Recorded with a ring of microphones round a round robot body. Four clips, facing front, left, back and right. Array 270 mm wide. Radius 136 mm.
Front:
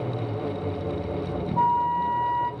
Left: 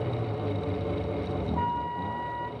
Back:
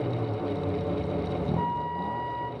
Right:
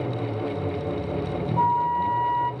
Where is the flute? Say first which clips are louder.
Right 11 dB, front 7 dB; 20° left, 1.1 m.